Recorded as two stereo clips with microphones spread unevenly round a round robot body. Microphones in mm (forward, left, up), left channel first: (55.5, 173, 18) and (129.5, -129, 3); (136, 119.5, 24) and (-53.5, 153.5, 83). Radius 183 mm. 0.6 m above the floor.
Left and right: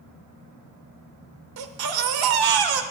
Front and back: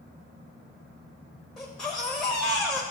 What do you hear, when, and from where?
1.6 s a baby crying: 100° right, 0.8 m